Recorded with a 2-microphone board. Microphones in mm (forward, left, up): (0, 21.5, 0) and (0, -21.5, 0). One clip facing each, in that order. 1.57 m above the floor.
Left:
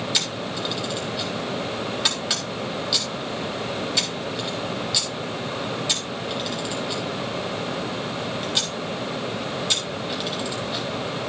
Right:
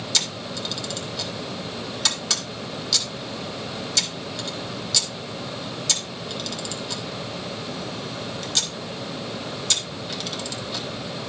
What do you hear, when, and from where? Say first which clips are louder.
0.1 s a camera shutter: left 2 dB; 15° left (ahead or behind), 3.5 m